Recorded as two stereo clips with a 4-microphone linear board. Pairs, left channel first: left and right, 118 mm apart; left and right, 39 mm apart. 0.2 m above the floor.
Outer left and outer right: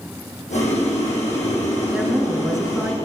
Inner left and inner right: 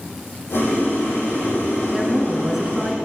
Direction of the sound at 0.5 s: 75° left (ahead or behind).